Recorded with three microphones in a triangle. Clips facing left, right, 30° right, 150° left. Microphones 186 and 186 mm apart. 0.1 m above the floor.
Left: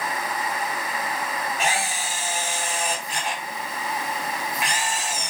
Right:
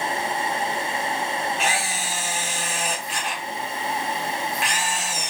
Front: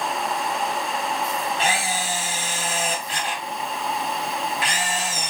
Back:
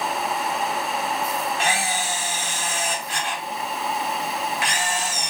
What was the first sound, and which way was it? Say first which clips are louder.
A camera shutter: even, even; 20° left.